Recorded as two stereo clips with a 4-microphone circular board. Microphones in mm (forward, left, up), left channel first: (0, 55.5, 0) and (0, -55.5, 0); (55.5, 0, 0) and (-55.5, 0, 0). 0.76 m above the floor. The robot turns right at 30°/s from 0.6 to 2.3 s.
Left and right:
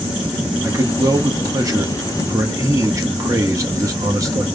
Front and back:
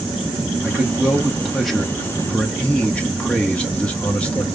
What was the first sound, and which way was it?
A man speaking, 120° right.